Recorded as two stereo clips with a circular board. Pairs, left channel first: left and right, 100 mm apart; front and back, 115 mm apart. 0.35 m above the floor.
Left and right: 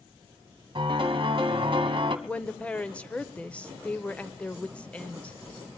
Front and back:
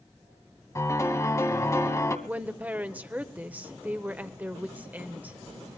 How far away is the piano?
About 1.4 m.